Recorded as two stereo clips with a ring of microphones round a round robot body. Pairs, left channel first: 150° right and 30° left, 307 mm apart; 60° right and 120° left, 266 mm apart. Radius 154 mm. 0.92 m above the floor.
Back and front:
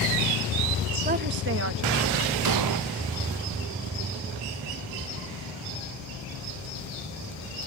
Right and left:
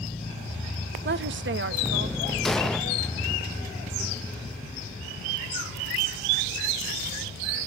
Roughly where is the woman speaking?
Left.